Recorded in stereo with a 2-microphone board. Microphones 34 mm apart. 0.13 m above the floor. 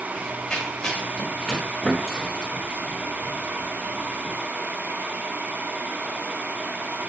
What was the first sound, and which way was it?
Running footsteps, 20° left (ahead or behind).